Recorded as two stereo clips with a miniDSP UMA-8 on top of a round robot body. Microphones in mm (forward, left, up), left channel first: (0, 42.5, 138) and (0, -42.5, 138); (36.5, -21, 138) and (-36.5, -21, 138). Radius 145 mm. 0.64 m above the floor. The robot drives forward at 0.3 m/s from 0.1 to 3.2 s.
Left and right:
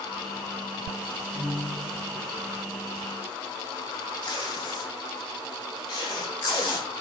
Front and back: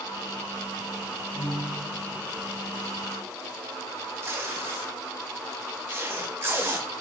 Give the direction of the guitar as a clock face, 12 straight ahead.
1 o'clock.